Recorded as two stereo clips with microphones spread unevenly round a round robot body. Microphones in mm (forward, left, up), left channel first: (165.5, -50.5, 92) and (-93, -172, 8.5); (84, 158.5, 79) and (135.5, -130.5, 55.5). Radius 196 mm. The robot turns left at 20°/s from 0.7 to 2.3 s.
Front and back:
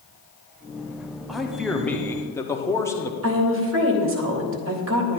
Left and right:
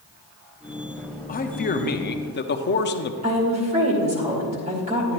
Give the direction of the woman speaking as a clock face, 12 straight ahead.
5 o'clock.